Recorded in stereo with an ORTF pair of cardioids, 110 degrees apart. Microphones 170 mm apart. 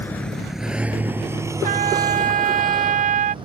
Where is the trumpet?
50° right.